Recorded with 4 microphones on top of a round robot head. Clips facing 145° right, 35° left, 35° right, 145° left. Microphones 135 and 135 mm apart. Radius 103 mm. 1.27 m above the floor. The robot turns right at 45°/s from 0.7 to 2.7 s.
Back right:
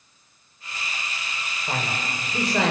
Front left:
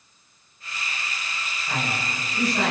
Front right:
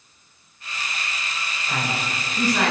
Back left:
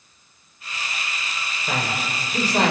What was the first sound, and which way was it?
A man speaking, 160° left.